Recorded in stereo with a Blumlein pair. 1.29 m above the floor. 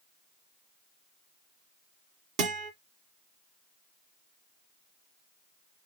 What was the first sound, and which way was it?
A guitar, 40° right.